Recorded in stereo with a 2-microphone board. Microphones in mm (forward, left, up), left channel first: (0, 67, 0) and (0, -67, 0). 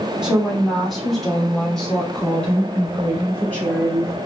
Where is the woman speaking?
5° right (ahead or behind), 2 m; by 4.2 s 15° left (ahead or behind), 4 m.